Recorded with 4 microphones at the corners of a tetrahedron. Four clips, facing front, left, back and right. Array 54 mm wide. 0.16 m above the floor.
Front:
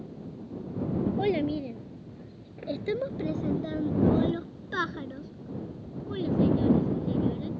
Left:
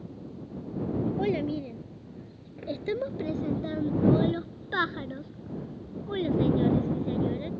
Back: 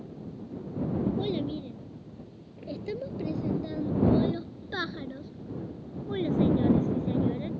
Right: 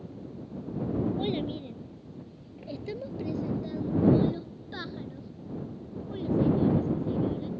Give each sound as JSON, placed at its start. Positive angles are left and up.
{"t": 1.2, "sound": "a child speaking", "azimuth_deg": 30}